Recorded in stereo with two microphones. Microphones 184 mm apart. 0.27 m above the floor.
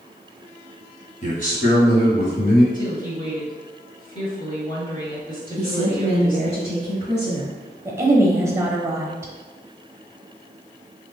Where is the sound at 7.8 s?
15° right (ahead or behind), 0.9 m.